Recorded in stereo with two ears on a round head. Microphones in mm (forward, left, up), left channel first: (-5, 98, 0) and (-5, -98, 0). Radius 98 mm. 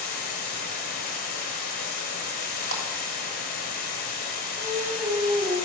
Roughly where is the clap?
Right.